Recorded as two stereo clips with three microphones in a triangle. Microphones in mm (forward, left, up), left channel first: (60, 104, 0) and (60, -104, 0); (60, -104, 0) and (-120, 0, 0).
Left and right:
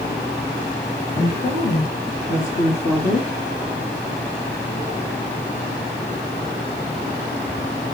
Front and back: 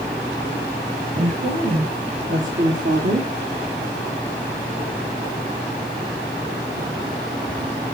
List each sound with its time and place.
1.1 s a woman speaking: 115° left, 3 m; by 3.3 s 145° left, 1.6 m